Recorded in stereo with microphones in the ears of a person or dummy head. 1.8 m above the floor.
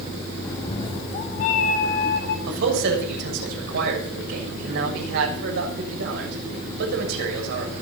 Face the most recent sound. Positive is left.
turn(degrees=-65)  # may be behind; listen again after turning